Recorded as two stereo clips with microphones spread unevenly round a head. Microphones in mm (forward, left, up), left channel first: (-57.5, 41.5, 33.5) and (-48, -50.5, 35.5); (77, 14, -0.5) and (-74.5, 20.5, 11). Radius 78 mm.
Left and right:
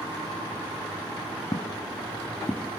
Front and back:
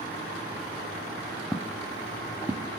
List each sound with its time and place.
1.5 s footsteps: 95° left, 1.4 m; by 2.7 s straight behind, 1.3 m